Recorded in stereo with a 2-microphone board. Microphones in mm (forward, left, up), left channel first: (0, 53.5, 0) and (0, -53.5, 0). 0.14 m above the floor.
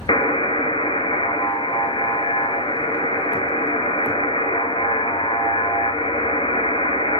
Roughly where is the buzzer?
Left.